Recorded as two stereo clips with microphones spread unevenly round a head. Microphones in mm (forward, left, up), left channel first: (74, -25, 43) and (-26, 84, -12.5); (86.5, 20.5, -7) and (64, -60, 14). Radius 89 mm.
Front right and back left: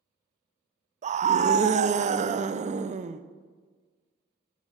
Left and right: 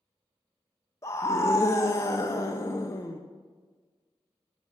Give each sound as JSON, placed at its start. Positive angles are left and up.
{"t": 1.0, "sound": "a scream", "azimuth_deg": 130, "distance_m": 0.5}